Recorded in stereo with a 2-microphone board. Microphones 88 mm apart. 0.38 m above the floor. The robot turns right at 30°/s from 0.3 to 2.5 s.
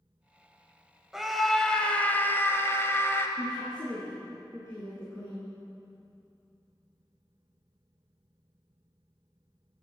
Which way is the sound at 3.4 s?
40° left (ahead or behind).